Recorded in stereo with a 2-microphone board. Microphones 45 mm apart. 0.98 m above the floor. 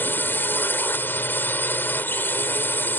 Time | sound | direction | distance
0.0 | a drone | 50° left (ahead or behind) | ?